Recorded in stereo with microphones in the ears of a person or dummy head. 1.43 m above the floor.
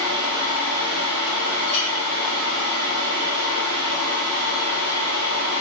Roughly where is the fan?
Right.